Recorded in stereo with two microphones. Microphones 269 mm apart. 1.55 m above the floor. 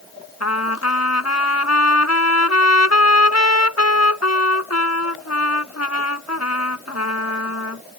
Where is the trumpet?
80° left.